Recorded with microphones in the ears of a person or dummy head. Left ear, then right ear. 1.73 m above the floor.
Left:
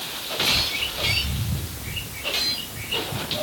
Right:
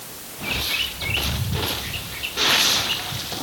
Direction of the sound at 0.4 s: 85° right.